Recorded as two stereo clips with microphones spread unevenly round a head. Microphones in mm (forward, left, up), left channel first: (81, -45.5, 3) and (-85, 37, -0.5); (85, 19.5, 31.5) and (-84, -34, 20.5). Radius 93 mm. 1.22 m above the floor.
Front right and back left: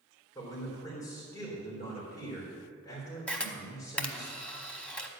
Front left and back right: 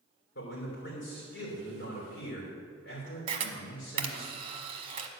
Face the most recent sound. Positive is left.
turn(degrees=-105)